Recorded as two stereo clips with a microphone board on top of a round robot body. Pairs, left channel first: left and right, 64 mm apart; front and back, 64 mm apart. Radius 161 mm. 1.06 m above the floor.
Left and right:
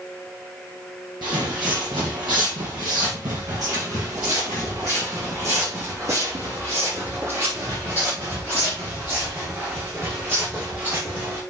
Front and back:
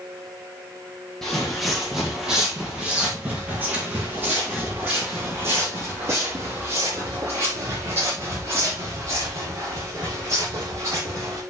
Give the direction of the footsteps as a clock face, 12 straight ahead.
3 o'clock.